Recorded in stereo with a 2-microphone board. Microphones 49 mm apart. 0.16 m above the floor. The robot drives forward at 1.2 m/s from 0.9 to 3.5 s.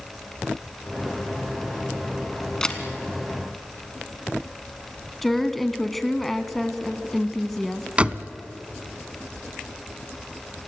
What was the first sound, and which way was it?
A camera shutter, 10° left (ahead or behind).